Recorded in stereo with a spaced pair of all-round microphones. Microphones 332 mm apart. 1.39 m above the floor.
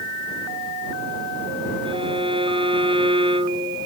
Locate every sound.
1.9 s a violin: 15° right (ahead or behind)